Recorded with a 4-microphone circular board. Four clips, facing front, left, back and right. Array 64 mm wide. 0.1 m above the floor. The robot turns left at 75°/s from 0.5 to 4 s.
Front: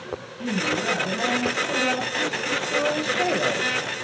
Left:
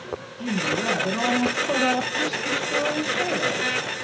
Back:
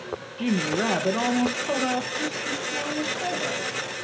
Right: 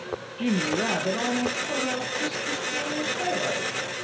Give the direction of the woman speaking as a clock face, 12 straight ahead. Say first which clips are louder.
Even, back 1 dB; 5 o'clock.